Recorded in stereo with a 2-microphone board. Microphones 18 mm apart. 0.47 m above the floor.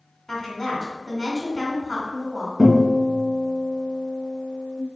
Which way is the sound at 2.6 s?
Centre (ahead or behind).